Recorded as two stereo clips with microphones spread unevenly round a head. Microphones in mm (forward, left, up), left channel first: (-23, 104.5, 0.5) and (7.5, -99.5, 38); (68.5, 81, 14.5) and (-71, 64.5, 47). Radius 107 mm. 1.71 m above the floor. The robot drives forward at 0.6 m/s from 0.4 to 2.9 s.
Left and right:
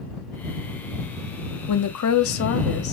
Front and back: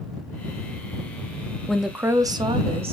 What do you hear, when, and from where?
1.7 s a woman speaking: 95° left, 0.6 m; by 2.9 s 140° left, 1.0 m